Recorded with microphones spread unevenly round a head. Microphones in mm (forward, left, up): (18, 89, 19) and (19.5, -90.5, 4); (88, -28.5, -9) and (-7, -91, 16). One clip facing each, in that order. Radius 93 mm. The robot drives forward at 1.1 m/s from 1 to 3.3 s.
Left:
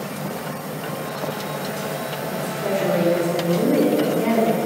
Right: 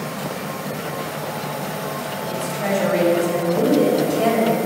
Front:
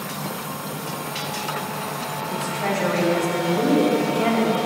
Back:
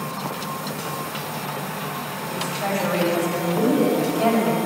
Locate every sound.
2.3 s a woman speaking: 70° right, 6 m; by 4.6 s 80° right, 5.5 m